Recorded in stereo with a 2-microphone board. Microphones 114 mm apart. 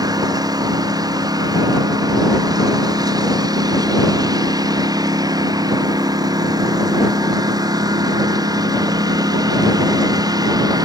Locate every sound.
0.0 s a lawn mower: 35° right (ahead or behind)